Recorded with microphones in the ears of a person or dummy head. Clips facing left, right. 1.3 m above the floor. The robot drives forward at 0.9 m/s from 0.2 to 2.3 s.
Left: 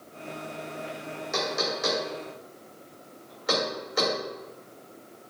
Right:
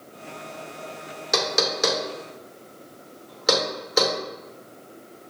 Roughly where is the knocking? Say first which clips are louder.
Right 5 dB; right.